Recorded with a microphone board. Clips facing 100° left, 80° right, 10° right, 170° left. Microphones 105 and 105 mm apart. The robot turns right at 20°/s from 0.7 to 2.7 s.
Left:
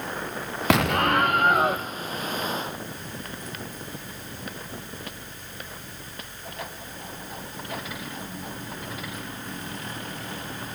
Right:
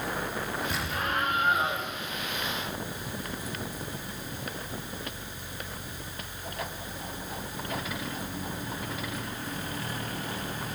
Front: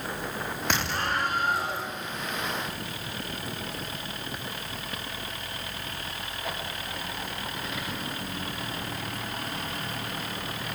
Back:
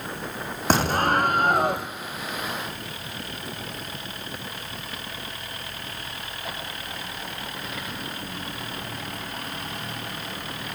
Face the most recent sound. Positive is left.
turn(degrees=155)